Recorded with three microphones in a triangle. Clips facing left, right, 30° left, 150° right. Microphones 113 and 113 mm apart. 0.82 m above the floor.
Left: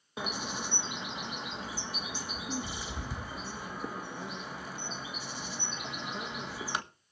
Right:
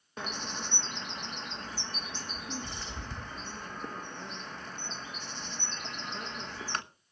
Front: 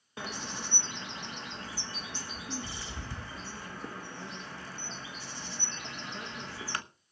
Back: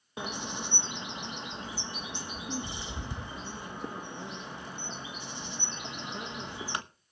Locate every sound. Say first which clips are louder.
0.2 s a bird: left 2 dB, back 3 dB; 160° left, 1.1 m